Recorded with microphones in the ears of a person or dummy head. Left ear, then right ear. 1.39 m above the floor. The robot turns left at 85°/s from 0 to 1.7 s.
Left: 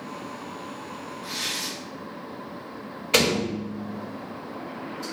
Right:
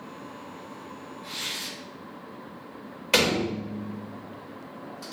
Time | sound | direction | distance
1.2 | tearing paper | 10° left | 1.9 m
3.1 | a door slam | 50° right (ahead or behind) | 1.4 m